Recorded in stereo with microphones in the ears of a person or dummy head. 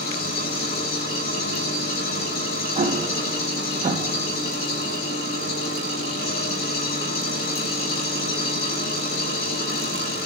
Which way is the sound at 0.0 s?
60° left (ahead or behind).